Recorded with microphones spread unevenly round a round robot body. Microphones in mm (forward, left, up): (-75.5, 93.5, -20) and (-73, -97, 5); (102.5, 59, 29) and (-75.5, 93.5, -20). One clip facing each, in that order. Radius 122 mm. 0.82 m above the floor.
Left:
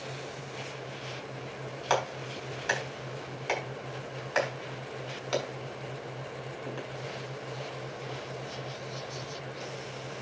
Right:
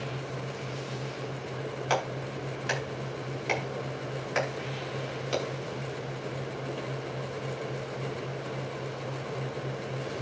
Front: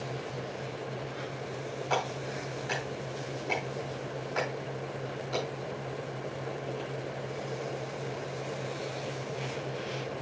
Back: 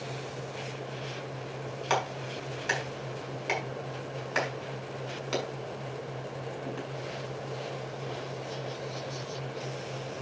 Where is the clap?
160° right, 6 m.